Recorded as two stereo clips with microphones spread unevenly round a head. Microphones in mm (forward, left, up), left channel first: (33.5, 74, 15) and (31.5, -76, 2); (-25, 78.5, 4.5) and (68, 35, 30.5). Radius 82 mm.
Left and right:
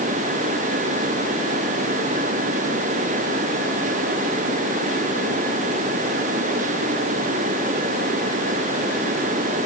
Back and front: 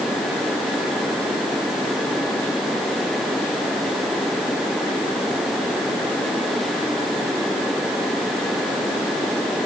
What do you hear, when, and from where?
Only background noise.